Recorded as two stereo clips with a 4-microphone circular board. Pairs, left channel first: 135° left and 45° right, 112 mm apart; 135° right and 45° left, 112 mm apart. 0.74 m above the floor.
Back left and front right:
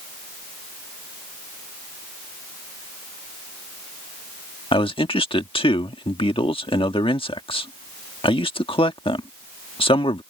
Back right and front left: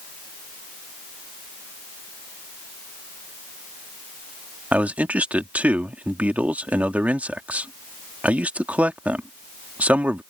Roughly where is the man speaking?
Behind left.